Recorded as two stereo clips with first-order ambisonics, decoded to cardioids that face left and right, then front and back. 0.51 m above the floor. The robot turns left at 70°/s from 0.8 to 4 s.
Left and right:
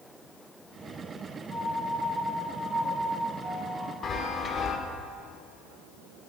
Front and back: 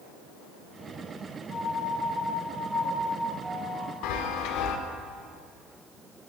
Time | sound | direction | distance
1.5 | a piano | 10° left | 2.5 m
4.0 | a chime | 25° left | 0.5 m